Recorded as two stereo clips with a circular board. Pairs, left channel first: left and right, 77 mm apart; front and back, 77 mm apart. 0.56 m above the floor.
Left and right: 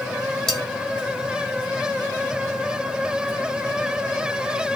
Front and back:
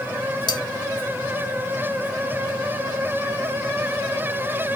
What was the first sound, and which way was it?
Cutlery clinking, 5° left.